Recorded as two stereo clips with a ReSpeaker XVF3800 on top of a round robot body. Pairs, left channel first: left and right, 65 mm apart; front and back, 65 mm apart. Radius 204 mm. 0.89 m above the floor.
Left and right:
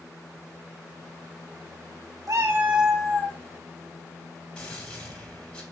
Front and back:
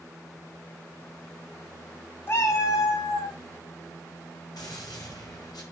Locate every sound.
2.3 s a cat meowing: 55° right, 0.6 m; by 3.4 s 15° left, 0.9 m
4.6 s a gunshot: 15° left, 4 m